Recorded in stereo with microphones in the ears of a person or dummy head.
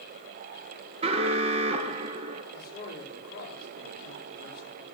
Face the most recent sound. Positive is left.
turn(degrees=55)  # may be behind; listen again after turning